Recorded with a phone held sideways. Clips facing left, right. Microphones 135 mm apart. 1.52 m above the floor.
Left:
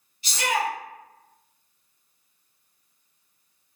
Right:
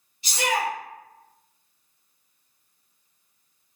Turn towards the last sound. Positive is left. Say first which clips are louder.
# even
turn(degrees=-20)  # may be behind; listen again after turning